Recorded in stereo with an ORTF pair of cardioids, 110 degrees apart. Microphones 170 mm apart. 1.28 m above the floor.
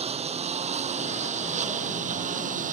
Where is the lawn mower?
35° right; by 2.8 s 50° right.